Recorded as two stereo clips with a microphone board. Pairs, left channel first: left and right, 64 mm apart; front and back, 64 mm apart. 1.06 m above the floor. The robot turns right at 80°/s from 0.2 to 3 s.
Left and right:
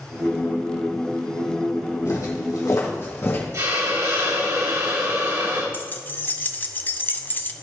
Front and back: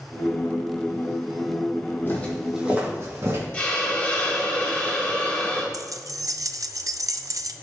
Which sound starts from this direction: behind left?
Keys jangling, at 5.7 s.